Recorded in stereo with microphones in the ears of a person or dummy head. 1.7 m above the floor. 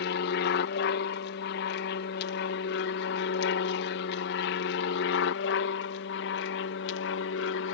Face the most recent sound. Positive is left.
turn(degrees=65)  # may be behind; listen again after turning